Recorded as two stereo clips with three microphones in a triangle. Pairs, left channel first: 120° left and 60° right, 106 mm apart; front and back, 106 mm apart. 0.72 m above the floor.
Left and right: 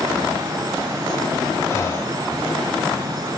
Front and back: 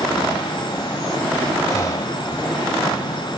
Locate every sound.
1.7 s breathing: 60° left